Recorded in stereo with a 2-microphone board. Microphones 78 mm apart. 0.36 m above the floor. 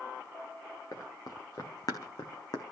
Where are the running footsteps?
50° left (ahead or behind), 2.5 m; by 2.6 s 60° left (ahead or behind), 1.7 m.